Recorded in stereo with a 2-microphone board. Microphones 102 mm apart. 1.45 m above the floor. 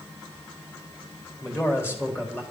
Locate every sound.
1.4 s a man speaking: 25° left (ahead or behind), 3.5 m